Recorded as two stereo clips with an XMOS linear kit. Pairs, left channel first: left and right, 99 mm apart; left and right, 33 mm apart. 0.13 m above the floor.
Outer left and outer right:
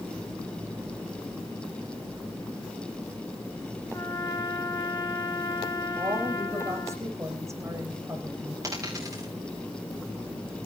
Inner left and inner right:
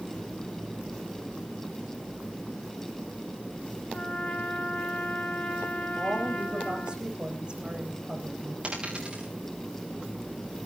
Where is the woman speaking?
30° right (ahead or behind), 8 m.